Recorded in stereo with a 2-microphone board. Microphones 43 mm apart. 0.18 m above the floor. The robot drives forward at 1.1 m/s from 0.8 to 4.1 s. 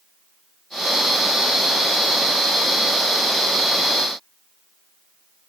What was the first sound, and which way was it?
Only background noise.